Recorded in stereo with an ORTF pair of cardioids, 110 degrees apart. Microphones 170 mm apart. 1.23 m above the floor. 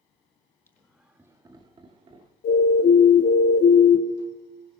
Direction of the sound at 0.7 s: 15° left.